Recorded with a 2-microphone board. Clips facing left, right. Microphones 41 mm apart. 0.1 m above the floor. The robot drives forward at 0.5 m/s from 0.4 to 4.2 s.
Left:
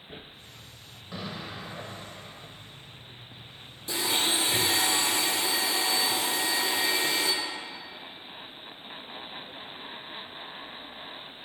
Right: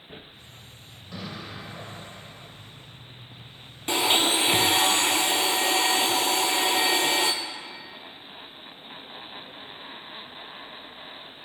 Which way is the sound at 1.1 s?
10° left (ahead or behind).